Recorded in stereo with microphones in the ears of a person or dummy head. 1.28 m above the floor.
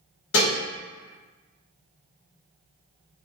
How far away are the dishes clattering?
About 1.4 m.